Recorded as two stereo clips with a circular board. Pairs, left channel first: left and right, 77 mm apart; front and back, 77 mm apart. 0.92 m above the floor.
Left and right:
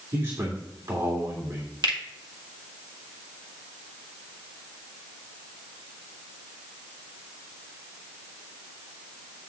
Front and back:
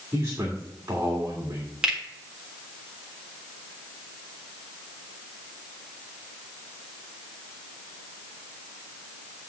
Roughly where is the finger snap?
Right.